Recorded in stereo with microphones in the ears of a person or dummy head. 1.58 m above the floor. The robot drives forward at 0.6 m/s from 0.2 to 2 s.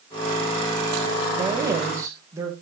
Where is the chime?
I don't hear a chime.